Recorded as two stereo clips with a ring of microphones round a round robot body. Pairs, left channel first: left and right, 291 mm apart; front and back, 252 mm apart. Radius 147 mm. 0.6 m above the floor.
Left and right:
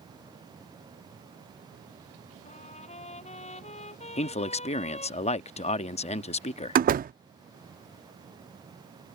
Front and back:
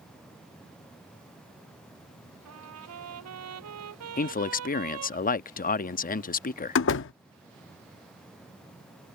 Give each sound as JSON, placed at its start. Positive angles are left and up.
{"t": 2.5, "sound": "a trumpet", "azimuth_deg": 160}
{"t": 4.2, "sound": "a man speaking", "azimuth_deg": 35}
{"t": 6.8, "sound": "a door slam", "azimuth_deg": -35}